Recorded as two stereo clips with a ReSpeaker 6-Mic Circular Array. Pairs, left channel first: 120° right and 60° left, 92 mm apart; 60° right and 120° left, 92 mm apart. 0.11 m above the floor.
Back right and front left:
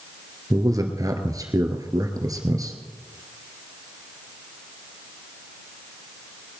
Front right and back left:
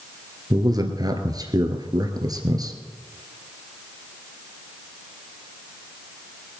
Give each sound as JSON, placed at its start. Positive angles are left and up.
{"t": 0.5, "sound": "a man speaking", "azimuth_deg": 95, "distance_m": 1.8}